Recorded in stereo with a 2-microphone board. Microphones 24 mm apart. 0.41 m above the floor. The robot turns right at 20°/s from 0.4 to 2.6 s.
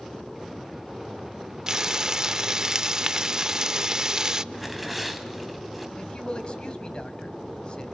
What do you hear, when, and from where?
1.7 s frying: 25° right (ahead or behind), 0.5 m; by 4.4 s 30° right (ahead or behind), 0.5 m
4.5 s tearing paper: centre (ahead or behind), 2.5 m
6.0 s a man speaking: 45° left (ahead or behind), 2.5 m